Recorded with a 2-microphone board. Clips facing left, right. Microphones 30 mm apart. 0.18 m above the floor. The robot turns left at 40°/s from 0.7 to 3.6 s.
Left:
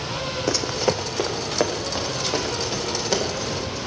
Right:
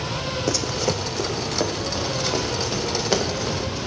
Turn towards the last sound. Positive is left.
turn(degrees=-35)  # may be behind; listen again after turning